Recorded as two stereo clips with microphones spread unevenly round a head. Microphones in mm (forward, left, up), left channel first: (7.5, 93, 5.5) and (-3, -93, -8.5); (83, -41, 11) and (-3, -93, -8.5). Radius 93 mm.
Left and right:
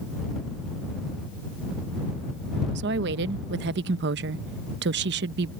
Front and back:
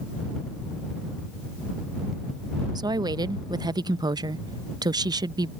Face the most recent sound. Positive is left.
turn(degrees=-110)